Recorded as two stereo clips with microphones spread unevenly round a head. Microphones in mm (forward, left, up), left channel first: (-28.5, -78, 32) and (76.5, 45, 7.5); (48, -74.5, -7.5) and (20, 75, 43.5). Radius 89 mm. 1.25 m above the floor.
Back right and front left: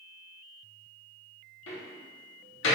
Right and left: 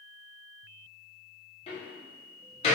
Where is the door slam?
140° right, 2 m.